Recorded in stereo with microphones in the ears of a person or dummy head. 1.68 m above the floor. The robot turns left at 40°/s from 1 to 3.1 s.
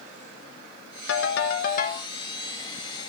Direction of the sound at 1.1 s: 75° left.